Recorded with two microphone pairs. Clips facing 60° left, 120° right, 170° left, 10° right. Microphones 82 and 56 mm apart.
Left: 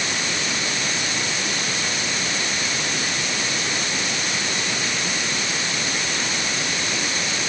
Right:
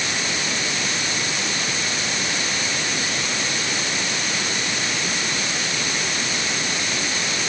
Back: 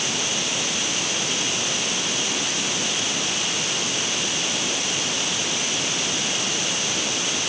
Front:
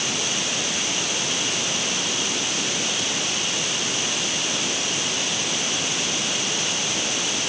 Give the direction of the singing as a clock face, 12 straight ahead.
No singing in this recording.